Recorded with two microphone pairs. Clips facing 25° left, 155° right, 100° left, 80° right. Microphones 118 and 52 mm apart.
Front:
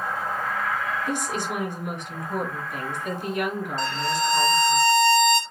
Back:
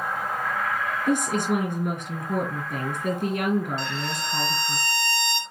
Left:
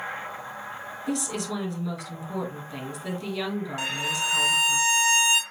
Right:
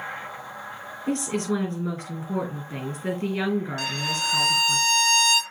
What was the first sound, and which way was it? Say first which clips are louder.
A woman speaking: back 5 dB, right 4 dB; 130° right.